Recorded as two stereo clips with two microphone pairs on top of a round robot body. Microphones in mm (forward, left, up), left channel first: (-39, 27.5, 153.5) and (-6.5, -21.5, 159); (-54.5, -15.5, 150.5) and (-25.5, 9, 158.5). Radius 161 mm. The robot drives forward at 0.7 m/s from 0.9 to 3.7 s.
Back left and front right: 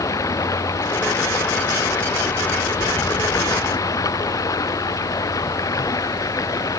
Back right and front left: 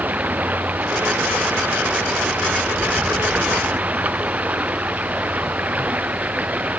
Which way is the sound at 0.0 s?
90° left.